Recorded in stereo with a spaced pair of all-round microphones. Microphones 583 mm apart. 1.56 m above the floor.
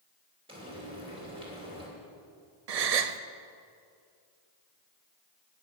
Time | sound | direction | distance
0.5 | frying | 10° right (ahead or behind) | 3 m
2.7 | a gasp | 85° right | 0.6 m